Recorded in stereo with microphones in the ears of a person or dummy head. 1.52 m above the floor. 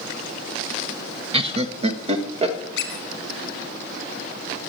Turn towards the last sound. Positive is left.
turn(degrees=65)  # may be behind; listen again after turning